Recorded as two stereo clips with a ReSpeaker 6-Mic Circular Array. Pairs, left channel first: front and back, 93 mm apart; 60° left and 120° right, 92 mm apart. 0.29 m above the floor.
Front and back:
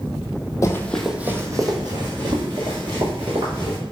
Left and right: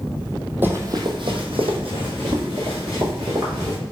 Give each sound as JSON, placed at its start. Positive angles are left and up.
{"t": 0.6, "sound": "running footsteps", "azimuth_deg": -50, "distance_m": 0.6}